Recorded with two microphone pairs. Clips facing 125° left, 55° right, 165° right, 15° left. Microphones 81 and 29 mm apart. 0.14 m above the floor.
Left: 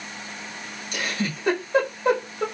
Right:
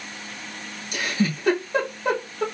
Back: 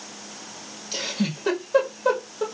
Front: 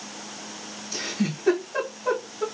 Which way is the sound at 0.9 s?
145° right.